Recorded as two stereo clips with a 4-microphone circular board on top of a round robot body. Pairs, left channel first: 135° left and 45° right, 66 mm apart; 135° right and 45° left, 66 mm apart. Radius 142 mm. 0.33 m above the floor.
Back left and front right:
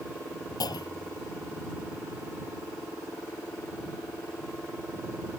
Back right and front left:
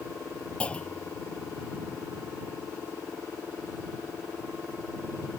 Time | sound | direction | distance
0.6 | a clunk | 150° left | ?